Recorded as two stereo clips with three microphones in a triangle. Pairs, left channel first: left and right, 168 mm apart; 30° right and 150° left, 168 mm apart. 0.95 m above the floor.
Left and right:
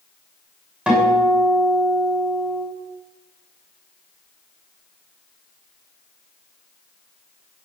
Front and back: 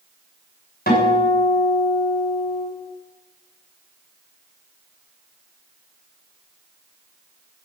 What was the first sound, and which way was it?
A guitar, 5° right.